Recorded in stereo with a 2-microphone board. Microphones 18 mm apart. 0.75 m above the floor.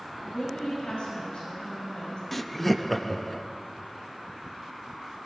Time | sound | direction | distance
0.2 | a woman speaking | 75° left (ahead or behind) | 5 m
2.3 | laughter | 5° left (ahead or behind) | 0.5 m